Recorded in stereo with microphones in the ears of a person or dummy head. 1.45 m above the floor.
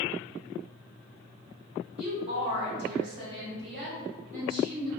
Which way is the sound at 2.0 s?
40° right (ahead or behind).